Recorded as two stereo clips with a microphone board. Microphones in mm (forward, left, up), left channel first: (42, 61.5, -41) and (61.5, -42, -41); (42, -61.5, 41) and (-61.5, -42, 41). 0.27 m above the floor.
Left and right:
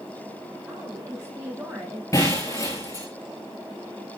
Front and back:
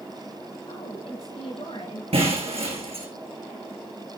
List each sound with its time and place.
0.7 s a woman speaking: 25° right, 7 m; by 2.0 s 20° right, 6.5 m
2.1 s breaking glass: 160° left, 5 m